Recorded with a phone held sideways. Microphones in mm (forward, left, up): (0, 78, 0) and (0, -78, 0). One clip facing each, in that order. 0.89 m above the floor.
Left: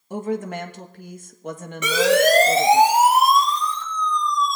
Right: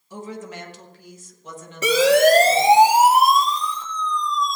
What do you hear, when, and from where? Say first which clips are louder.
0.1 s a woman speaking: left 8 dB; 55° left (ahead or behind), 1.1 m
1.8 s a siren: right 2 dB; 35° right (ahead or behind), 6 m; by 4.6 s 20° right (ahead or behind), 4.5 m